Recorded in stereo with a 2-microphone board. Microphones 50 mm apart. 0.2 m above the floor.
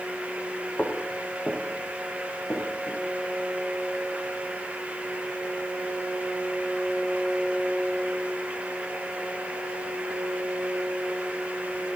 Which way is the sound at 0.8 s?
25° left (ahead or behind).